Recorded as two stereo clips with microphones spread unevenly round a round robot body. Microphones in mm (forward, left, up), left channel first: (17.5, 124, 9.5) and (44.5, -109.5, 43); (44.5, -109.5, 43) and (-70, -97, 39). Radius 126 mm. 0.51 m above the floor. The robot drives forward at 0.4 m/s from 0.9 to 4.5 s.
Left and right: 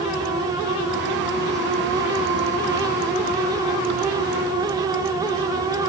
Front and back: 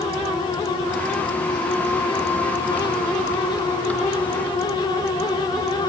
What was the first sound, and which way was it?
Only background noise.